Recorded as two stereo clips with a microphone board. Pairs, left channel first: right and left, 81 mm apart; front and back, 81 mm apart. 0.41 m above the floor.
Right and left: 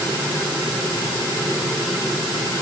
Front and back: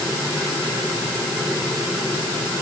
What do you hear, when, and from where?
Only background noise.